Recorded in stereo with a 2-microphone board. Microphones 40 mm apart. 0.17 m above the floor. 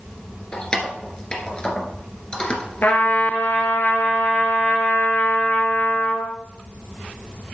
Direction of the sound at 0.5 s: 20° left (ahead or behind).